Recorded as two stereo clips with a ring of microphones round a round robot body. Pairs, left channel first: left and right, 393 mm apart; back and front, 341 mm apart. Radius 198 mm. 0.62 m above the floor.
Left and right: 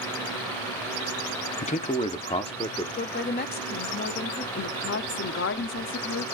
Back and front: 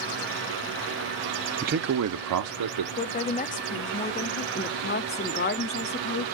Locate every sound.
1.6 s a man speaking: 40° left, 0.7 m; by 2.9 s 15° left, 1.5 m
3.0 s a woman speaking: 135° left, 0.6 m
4.5 s a woman speaking: 135° left, 0.6 m